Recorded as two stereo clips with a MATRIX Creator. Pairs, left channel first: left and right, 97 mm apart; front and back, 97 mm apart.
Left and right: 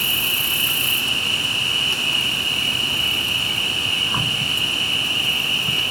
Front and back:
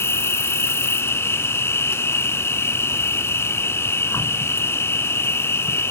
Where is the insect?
Straight ahead, 1.1 m.